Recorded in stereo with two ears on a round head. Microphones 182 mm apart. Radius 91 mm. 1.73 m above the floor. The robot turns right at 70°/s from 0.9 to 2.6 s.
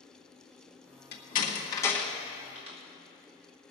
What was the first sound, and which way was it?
A door slam, 50° left (ahead or behind).